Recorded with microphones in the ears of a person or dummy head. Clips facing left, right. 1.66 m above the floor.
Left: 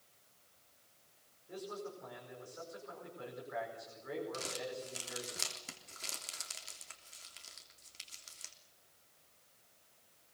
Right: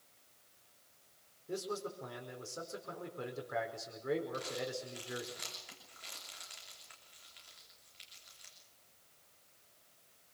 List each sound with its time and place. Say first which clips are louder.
1.5 s a man speaking: right 4 dB; 50° right (ahead or behind), 4.5 m
4.3 s crumpling: right 2 dB; 55° left (ahead or behind), 3 m